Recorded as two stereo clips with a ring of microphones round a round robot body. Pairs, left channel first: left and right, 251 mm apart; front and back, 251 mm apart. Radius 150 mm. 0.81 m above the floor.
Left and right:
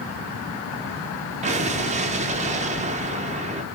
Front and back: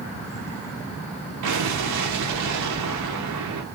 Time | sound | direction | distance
1.4 | an explosion | 150° right | 0.6 m